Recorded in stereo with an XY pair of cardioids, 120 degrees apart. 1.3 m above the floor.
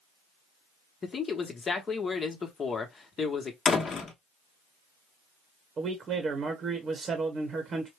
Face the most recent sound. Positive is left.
turn(degrees=-40)